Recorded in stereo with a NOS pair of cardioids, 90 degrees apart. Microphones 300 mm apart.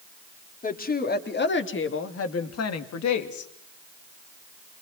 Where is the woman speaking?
25° left, 3.5 m; by 3.5 s 70° left, 2.5 m.